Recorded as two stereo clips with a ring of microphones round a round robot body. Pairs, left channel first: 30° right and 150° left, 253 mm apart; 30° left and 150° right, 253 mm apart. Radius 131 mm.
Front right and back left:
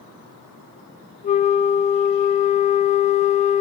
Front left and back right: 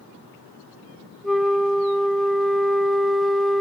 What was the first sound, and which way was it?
A flute, 60° right.